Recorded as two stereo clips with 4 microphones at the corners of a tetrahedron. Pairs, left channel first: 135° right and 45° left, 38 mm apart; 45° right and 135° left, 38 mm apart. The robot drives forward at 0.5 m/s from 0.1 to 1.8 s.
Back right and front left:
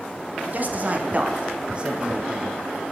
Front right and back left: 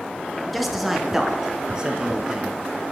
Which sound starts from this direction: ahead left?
A man speaking, at 0.5 s.